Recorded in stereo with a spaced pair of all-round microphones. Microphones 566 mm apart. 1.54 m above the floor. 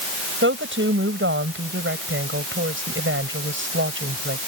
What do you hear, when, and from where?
0.4 s a woman speaking: 20° right (ahead or behind)